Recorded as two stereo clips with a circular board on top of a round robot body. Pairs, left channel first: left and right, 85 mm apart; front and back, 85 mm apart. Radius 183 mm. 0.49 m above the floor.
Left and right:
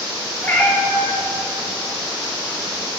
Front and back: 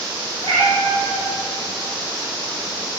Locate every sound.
0.4 s a cat meowing: 160° left, 1.3 m